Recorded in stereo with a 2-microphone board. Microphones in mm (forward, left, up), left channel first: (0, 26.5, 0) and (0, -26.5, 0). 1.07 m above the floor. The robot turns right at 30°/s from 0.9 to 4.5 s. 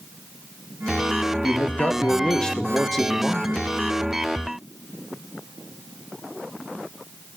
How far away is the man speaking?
About 0.7 m.